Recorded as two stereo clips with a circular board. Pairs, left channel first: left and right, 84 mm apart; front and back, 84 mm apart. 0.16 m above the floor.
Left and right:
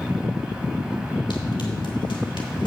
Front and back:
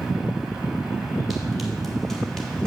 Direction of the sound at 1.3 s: 95° left.